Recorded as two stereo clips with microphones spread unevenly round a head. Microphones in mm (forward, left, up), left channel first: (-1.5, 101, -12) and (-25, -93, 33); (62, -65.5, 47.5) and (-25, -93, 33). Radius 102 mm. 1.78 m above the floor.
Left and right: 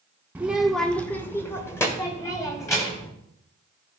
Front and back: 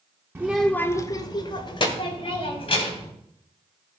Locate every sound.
0.3 s a child speaking: 110° right, 0.5 m; by 3.1 s 5° left, 2.5 m